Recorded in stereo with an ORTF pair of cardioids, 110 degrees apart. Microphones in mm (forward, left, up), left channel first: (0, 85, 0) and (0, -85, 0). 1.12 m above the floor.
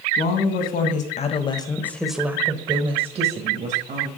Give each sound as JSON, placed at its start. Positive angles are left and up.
{"t": 0.2, "sound": "a woman speaking", "azimuth_deg": 70, "distance_m": 2.0}